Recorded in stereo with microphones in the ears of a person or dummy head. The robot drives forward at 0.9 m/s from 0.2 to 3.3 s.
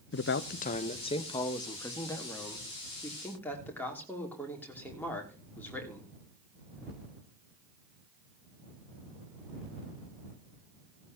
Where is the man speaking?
55° left (ahead or behind), 0.6 m; by 6.1 s 10° left (ahead or behind), 3 m.